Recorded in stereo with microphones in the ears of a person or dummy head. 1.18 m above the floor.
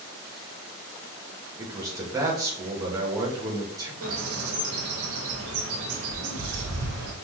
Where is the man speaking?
20° right (ahead or behind), 1.3 m.